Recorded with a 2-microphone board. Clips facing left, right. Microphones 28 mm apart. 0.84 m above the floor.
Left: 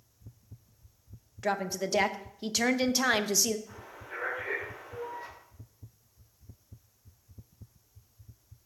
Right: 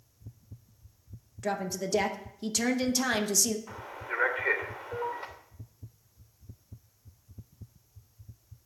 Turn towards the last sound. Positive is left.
turn(degrees=-55)  # may be behind; listen again after turning